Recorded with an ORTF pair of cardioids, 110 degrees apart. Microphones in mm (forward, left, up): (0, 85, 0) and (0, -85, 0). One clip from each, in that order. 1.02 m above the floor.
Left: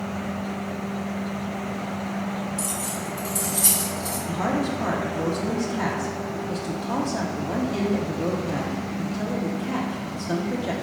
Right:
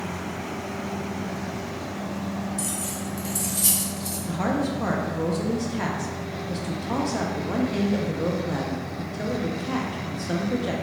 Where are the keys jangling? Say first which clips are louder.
Left 2 dB; 5° right, 1.2 m.